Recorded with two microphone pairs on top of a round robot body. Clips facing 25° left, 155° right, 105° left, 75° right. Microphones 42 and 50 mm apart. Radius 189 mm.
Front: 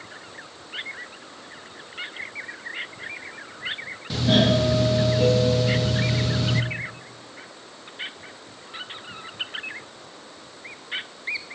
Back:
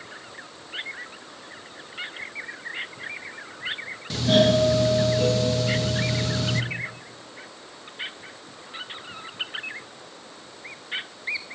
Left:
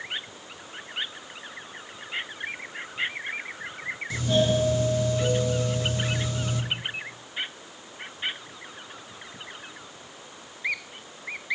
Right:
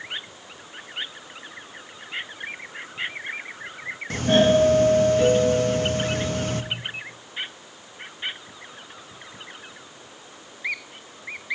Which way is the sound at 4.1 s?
50° right.